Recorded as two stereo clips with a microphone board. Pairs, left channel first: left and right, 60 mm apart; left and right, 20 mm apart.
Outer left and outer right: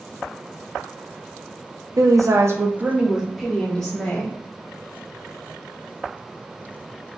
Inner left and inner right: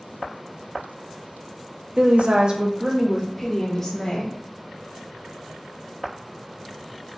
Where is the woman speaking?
75° right (ahead or behind), 0.7 m; by 4.4 s 20° left (ahead or behind), 1.4 m.